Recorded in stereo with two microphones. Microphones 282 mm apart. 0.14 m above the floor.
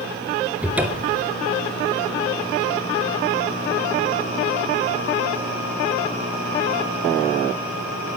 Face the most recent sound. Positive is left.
turn(degrees=-5)  # may be behind; listen again after turning